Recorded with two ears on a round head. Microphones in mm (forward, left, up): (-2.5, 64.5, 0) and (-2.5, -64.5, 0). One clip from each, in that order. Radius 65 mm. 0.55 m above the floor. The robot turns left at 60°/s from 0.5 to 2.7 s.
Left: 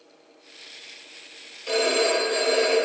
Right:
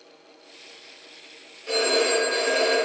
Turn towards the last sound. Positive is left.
turn(degrees=-10)